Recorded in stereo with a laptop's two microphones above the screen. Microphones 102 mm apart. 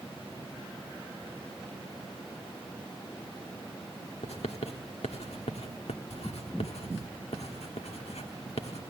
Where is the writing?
85° left, 1.4 m.